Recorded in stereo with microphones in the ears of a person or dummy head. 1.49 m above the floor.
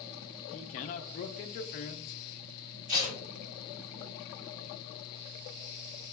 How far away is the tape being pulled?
About 1.8 m.